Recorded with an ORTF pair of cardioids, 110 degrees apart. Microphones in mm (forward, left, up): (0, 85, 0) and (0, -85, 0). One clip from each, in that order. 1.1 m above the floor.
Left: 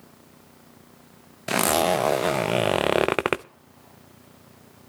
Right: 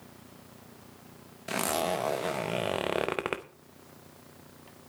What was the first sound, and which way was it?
A zipper, 40° left.